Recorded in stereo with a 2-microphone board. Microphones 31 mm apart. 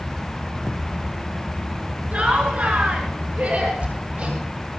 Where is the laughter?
45° right (ahead or behind), 8 m; by 3.7 s 40° right (ahead or behind), 8.5 m.